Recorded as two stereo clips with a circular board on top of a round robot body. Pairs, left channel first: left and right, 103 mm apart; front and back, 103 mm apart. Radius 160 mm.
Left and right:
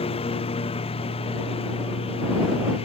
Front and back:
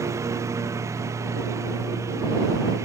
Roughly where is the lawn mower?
Behind left.